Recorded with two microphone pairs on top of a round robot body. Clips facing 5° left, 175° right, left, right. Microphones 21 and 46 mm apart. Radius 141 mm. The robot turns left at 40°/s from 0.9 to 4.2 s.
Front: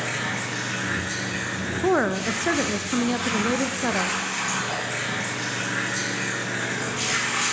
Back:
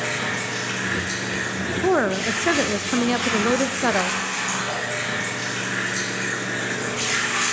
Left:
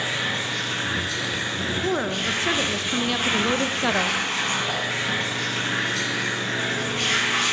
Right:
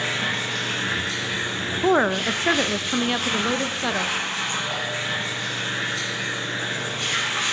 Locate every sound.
0.0 s running water: 125° right, 6.5 m; by 7.5 s 105° left, 6.5 m
1.8 s a woman speaking: 105° right, 0.6 m; by 4.2 s 160° left, 0.6 m